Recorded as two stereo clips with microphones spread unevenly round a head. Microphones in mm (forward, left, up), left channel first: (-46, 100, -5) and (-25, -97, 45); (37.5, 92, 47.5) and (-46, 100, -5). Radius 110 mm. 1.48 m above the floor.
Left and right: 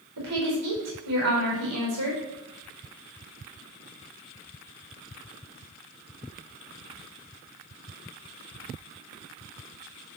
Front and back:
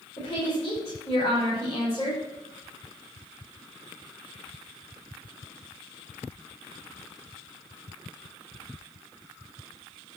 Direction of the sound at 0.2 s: 65° right.